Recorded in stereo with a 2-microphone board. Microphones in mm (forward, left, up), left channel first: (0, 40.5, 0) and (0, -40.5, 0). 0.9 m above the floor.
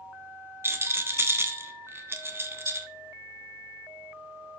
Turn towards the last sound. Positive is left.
turn(degrees=-30)  # may be behind; listen again after turning